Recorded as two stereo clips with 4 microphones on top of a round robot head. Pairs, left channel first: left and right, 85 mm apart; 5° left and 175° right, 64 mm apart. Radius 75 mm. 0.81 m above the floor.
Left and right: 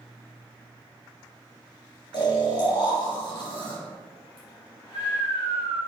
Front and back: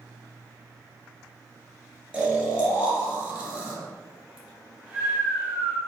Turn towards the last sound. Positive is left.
turn(degrees=125)